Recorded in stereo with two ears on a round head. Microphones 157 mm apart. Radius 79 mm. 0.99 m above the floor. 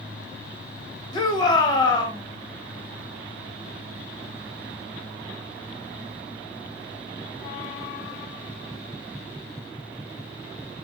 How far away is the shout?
About 0.8 m.